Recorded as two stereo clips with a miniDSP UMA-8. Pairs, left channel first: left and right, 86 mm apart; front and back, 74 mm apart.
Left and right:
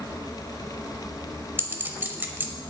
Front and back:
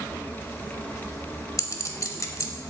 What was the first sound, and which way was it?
A clink, 30° right.